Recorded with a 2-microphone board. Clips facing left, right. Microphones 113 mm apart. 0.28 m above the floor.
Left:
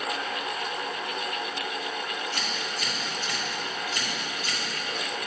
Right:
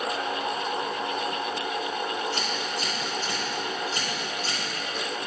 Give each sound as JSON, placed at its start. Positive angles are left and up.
{"t": 2.3, "sound": "scissors", "side_deg": -35, "distance_m": 2.5}